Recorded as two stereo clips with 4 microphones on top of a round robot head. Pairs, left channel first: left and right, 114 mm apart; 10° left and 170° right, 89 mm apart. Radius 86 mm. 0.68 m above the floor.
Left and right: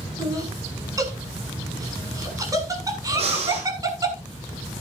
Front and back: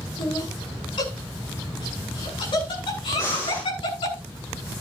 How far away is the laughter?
About 7.5 m.